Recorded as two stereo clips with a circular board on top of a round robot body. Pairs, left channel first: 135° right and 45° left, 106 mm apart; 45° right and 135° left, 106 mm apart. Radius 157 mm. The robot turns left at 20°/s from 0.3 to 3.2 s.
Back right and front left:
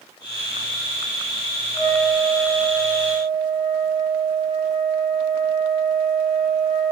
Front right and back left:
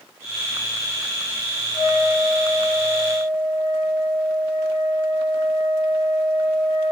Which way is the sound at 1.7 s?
85° right.